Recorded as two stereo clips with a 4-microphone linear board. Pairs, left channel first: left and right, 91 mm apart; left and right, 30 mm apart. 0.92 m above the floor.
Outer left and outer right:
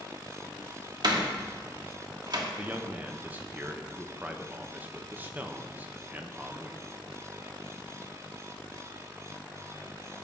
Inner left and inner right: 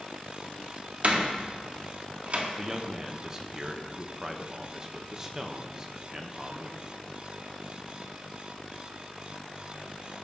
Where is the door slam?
50° right (ahead or behind), 1.5 m.